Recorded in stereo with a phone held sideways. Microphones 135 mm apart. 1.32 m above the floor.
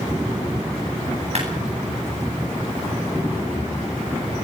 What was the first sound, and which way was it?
A clap, 55° right (ahead or behind).